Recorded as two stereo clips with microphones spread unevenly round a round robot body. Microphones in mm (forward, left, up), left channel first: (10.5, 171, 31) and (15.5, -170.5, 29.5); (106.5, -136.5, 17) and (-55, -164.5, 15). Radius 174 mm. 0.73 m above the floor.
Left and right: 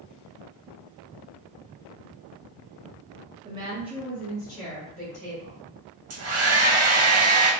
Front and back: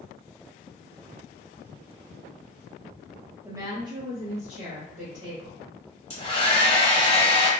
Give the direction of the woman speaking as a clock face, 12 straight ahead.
4 o'clock.